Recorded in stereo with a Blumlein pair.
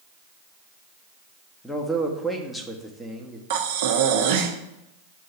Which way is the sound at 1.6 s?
5° left.